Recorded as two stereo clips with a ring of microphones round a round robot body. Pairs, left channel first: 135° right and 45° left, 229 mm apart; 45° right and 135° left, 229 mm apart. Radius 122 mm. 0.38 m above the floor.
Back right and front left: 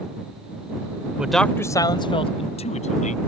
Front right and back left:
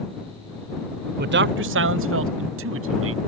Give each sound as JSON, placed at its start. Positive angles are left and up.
{"t": 1.2, "sound": "a man speaking", "azimuth_deg": 125}